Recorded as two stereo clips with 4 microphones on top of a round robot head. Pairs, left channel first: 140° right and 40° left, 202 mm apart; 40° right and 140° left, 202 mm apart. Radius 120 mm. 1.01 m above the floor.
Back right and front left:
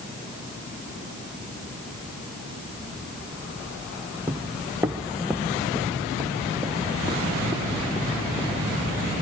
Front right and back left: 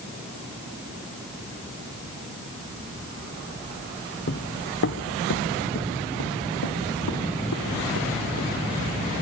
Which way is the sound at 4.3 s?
40° right.